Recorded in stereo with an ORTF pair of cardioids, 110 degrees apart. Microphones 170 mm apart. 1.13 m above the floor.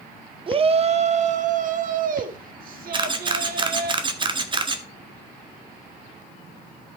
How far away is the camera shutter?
About 1.6 m.